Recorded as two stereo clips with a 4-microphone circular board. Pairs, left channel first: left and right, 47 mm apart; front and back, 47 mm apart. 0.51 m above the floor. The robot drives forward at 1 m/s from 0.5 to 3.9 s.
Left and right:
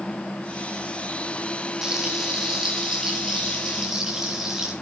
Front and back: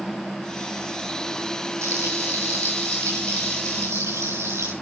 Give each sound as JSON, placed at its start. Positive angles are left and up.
{"t": 1.8, "sound": "frying", "azimuth_deg": -165, "distance_m": 5.5}